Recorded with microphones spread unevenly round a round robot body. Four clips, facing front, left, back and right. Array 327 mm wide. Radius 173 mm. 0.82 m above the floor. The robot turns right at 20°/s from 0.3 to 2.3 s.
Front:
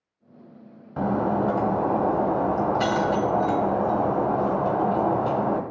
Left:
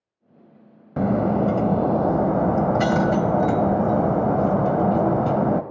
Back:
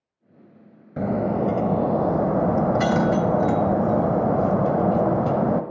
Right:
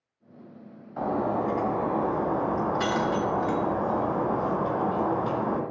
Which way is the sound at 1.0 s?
100° left.